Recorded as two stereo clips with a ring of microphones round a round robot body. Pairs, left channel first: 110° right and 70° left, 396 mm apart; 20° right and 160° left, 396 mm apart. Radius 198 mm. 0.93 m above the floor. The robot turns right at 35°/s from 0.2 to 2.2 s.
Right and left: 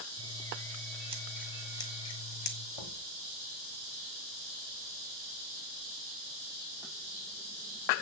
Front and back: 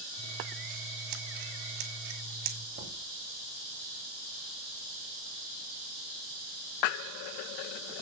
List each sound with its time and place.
0.2 s scissors: 110° left, 2.5 m; by 2.6 s straight behind, 2.5 m
2.8 s knocking: 135° right, 3 m